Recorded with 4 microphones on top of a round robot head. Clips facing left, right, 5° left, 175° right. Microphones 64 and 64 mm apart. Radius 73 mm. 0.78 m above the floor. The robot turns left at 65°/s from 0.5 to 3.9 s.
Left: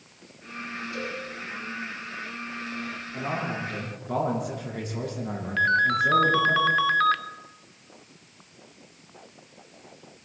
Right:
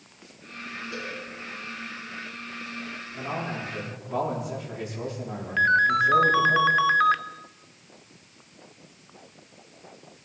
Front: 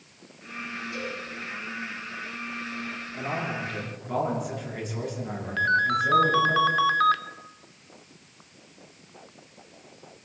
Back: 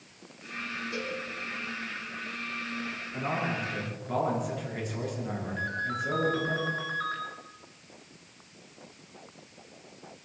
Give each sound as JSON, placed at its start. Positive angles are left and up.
{"t": 0.9, "sound": "a cowbell", "azimuth_deg": -120, "distance_m": 8.0}
{"t": 3.1, "sound": "a man speaking", "azimuth_deg": 140, "distance_m": 10.0}
{"t": 5.6, "sound": "a ringtone", "azimuth_deg": -15, "distance_m": 0.7}